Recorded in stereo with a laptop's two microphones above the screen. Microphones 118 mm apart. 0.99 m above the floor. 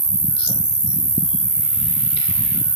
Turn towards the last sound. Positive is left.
turn(degrees=-40)  # may be behind; listen again after turning